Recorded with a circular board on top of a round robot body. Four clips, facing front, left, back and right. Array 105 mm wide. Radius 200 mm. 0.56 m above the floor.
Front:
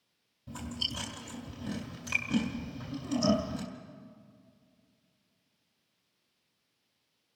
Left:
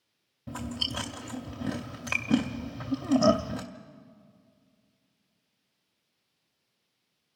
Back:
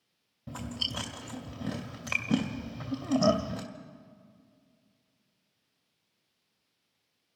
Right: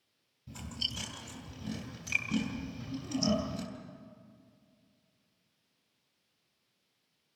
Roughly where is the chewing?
Behind left.